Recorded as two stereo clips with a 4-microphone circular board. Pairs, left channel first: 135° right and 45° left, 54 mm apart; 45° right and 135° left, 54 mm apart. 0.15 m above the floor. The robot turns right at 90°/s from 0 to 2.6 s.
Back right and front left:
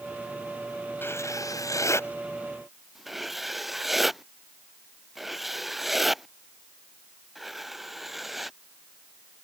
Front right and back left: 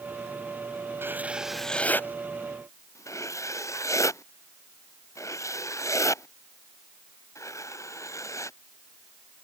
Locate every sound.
1.0 s writing: 175° left; by 8.6 s 40° right